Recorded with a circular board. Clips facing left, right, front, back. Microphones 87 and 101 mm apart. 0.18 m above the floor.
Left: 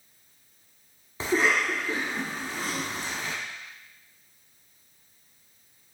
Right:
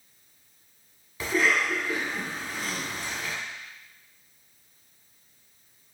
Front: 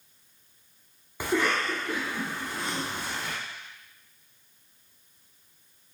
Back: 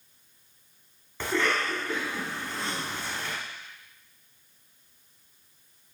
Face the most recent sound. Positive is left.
turn(degrees=65)